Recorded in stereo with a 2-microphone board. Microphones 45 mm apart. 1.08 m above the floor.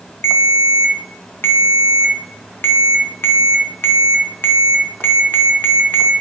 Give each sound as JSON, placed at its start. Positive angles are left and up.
{"t": 0.2, "sound": "a ringtone", "side_deg": 55, "distance_m": 0.5}